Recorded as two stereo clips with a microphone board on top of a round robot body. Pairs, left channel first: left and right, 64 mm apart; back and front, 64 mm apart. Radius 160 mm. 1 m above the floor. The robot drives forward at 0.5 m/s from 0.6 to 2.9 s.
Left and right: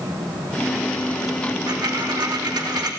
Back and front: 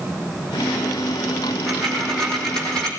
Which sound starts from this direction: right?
A dropped coin, at 1.7 s.